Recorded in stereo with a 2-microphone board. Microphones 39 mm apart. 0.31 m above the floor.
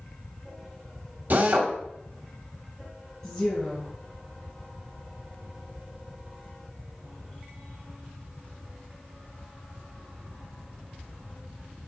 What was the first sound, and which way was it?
A drill, 50° right (ahead or behind).